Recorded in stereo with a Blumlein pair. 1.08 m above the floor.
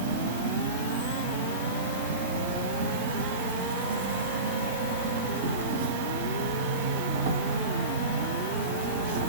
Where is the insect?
55° right, 0.9 m.